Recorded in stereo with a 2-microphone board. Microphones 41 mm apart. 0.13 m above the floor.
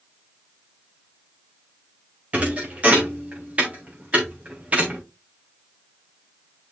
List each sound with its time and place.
2.3 s a thud: 30° right (ahead or behind), 3 m